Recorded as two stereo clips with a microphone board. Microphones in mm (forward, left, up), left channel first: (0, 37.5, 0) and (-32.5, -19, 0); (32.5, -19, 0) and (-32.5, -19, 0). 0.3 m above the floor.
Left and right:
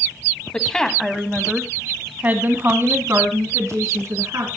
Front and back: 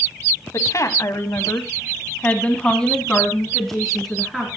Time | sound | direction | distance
0.5 | a woman speaking | 10° right | 1.9 m